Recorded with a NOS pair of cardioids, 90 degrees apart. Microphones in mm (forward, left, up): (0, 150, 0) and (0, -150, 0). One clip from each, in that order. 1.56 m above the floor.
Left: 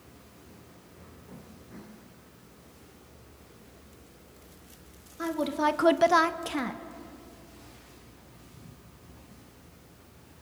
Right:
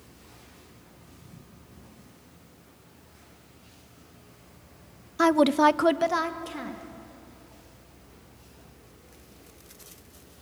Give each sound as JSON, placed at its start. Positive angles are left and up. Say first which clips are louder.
{"t": 5.2, "sound": "a woman speaking", "louder": "right 8 dB", "azimuth_deg": -70, "distance_m": 0.8}